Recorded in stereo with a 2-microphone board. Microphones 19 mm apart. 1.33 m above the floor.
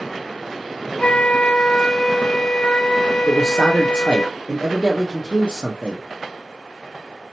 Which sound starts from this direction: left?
A flute, at 1.0 s.